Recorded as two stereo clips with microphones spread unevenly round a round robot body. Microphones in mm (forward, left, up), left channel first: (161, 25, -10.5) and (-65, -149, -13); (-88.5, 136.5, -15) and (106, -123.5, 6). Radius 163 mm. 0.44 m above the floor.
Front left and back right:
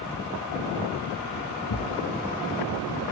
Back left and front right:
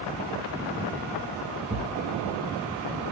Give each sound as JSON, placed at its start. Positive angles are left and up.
{"t": 1.7, "sound": "a thud", "azimuth_deg": 20, "distance_m": 2.0}